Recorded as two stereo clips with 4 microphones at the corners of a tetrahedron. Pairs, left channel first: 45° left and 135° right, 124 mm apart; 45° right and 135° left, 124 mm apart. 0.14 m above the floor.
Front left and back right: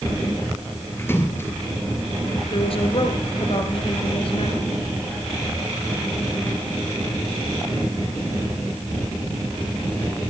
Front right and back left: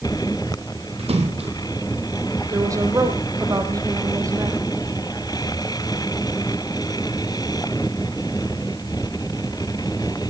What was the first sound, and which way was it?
A splash, 115° left.